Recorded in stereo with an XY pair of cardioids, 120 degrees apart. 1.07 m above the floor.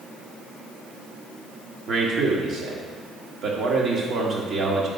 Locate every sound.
1.9 s a man speaking: 50° right, 1.6 m